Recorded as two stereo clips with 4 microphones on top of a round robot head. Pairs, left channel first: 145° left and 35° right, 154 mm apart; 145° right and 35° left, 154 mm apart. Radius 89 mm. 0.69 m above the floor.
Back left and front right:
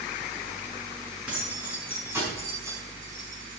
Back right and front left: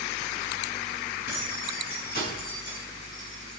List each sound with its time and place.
1.3 s keys jangling: 120° right, 6 m; by 3.6 s 100° right, 5 m